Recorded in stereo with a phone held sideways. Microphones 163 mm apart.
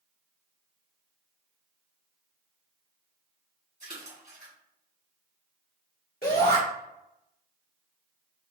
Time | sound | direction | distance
3.8 | a splash | 50° right (ahead or behind) | 2.0 m
6.2 | a shout | 70° left (ahead or behind) | 1.4 m